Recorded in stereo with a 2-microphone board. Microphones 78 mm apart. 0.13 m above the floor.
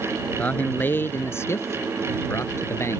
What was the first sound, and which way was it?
A man speaking, 20° left (ahead or behind).